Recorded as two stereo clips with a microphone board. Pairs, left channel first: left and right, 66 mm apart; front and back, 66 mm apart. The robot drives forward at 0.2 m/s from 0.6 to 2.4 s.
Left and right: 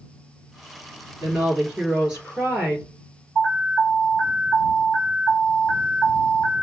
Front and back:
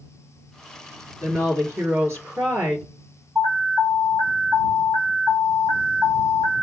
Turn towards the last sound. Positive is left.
turn(degrees=180)